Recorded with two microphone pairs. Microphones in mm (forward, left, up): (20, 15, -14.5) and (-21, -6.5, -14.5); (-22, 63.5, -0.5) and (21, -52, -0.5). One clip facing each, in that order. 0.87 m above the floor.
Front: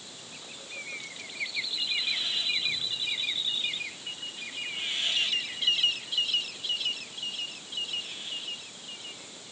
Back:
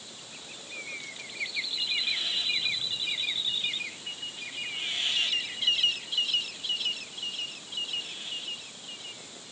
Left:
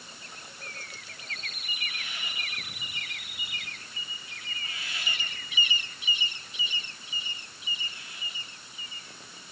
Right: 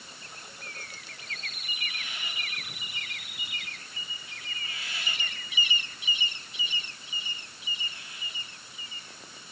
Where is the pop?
I don't hear a pop.